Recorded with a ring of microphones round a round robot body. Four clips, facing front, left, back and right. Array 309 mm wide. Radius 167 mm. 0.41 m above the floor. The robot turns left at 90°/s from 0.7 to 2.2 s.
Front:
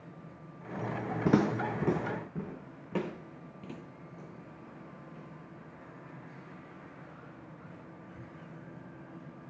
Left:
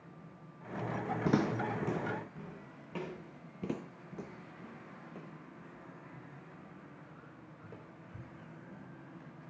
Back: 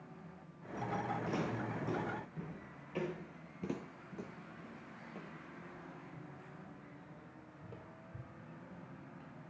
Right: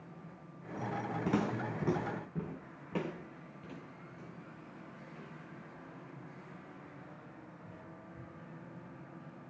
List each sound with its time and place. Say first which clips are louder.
1.2 s footsteps: left 3 dB, front 11 dB; 15° left, 1.4 m; by 3.1 s 20° right, 3.5 m
3.6 s footsteps: left 12 dB, back 6 dB; 105° left, 0.8 m; by 9.3 s 115° left, 8.5 m